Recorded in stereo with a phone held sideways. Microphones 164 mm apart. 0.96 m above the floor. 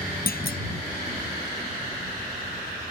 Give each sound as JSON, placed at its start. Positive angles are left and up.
{"t": 0.3, "sound": "a clunk", "side_deg": 65}